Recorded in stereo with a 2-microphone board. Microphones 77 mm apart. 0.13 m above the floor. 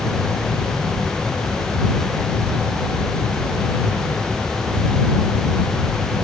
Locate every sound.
Only background noise.